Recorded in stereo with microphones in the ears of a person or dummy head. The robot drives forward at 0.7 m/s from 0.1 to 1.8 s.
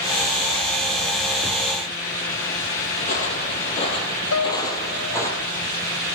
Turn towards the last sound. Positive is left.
turn(degrees=70)  # may be behind; listen again after turning